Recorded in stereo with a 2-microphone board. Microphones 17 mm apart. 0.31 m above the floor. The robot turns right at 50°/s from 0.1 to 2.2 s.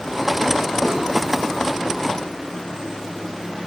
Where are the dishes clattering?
70° left (ahead or behind), 2.5 m; by 1.0 s 65° left (ahead or behind), 2.5 m.